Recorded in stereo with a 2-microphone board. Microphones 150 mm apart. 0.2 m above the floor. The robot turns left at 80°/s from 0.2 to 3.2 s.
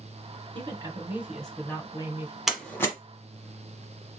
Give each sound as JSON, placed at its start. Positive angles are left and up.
{"t": 0.6, "sound": "a woman speaking", "azimuth_deg": -110, "distance_m": 1.5}
{"t": 2.5, "sound": "a door slam", "side_deg": -5, "distance_m": 1.1}